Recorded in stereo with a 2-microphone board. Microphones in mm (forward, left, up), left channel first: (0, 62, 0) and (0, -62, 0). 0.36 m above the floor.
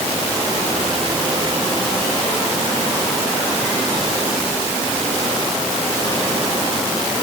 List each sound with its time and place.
Only background noise.